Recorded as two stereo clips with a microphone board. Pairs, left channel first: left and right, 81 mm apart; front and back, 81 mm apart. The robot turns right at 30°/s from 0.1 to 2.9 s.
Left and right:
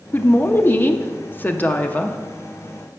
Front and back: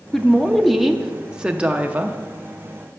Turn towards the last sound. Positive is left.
turn(degrees=160)